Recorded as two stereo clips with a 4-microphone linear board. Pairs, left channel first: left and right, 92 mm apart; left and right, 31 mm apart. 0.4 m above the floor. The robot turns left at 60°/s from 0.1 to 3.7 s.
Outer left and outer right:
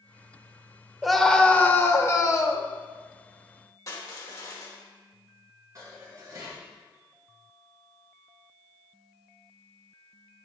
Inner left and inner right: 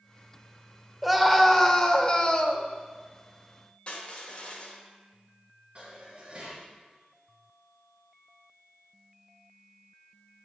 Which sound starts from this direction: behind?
A scream, at 1.0 s.